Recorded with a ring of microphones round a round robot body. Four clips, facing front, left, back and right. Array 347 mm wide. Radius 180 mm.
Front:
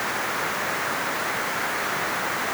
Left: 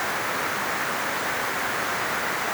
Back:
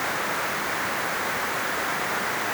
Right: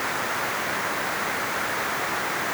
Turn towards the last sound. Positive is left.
No sound to turn to.